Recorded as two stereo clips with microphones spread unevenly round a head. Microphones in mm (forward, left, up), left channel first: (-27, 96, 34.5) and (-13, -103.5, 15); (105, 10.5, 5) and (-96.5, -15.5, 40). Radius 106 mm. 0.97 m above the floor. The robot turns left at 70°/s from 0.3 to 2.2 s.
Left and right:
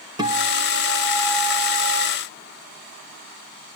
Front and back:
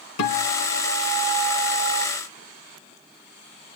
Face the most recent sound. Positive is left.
turn(degrees=-145)